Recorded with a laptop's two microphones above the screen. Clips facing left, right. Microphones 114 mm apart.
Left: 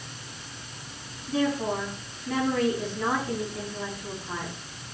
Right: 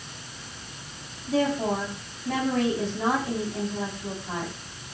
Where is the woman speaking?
75° right (ahead or behind), 5.5 m.